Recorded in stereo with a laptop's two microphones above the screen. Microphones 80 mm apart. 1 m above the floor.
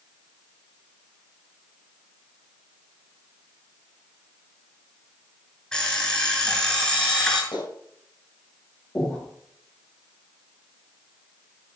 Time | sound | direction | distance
5.7 | an alarm clock | 10° left (ahead or behind) | 6.5 m
7.5 | a clap | 70° left (ahead or behind) | 5 m
8.9 | breathing | 20° left (ahead or behind) | 7 m